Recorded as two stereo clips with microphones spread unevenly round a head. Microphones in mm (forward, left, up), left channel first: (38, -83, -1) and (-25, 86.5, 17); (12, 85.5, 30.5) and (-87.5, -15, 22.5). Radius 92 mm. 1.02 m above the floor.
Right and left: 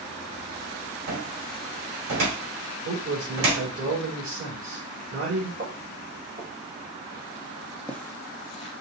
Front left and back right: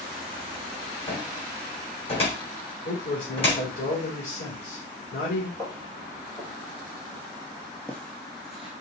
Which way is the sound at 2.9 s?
75° left.